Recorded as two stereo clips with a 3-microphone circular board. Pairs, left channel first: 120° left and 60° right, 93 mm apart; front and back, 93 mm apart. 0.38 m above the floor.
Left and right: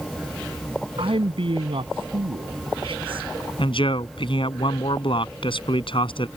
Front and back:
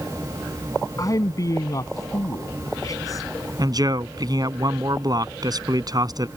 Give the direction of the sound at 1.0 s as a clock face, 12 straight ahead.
2 o'clock.